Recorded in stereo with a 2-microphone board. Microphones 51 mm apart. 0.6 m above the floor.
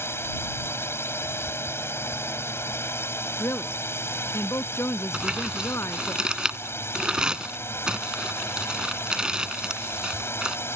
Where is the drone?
55° left (ahead or behind).